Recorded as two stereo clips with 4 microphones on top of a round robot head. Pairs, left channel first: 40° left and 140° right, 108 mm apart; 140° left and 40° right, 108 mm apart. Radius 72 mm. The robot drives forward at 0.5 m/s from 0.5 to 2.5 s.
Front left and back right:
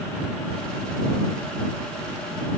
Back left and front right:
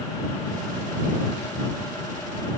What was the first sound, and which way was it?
Only background noise.